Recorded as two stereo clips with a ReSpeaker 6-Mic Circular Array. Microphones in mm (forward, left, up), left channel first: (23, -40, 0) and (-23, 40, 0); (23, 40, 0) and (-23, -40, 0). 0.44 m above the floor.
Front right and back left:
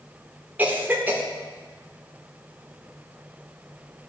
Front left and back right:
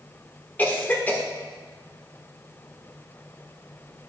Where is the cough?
90° left, 1.1 m.